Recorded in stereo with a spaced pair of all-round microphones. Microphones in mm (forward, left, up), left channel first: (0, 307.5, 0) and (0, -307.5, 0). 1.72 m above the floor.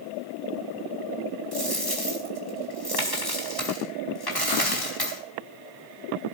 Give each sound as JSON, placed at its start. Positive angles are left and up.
{"t": 1.5, "sound": "a dropped coin", "side_deg": 35, "distance_m": 4.5}